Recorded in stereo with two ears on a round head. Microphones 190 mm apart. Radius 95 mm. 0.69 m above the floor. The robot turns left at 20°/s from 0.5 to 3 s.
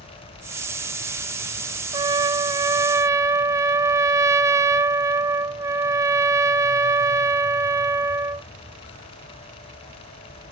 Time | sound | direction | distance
1.9 | a trumpet | 20° right (ahead or behind) | 0.6 m